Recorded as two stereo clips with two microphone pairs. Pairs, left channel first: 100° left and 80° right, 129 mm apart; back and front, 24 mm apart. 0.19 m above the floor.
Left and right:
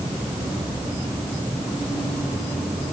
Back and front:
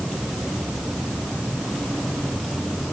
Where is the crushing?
No crushing in this recording.